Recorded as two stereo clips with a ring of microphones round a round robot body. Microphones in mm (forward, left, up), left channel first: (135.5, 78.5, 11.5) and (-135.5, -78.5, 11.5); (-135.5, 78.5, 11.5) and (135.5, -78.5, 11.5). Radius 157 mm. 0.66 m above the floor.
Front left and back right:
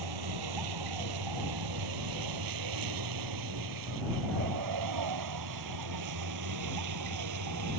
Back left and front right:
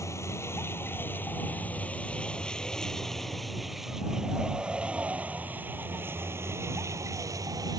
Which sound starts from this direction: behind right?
A vehicle, at 0.0 s.